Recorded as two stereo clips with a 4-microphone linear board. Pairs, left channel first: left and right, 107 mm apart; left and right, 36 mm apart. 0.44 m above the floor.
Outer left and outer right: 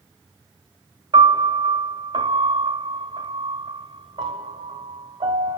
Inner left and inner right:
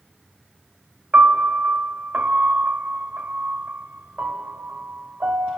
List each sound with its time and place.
1.1 s a piano: 45° right (ahead or behind), 1.4 m